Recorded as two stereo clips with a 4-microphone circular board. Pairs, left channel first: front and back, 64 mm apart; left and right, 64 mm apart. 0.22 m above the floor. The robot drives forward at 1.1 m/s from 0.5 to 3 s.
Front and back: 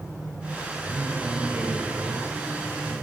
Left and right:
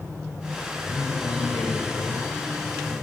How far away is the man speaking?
About 5.5 m.